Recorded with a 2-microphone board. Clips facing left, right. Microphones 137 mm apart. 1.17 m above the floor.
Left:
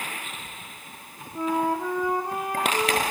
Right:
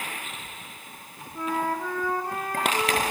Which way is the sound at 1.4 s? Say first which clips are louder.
Left 3 dB; 15° left (ahead or behind).